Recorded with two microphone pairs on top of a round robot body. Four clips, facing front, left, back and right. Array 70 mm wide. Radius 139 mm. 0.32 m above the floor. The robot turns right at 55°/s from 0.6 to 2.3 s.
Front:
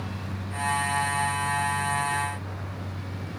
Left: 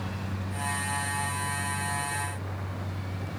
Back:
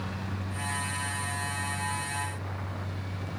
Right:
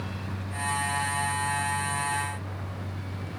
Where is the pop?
I don't hear a pop.